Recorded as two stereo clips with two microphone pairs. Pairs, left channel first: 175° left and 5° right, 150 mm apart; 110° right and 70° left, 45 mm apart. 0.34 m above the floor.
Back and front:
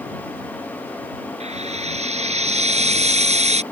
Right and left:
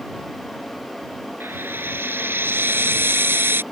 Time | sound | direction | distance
1.4 | frying | 35° left | ?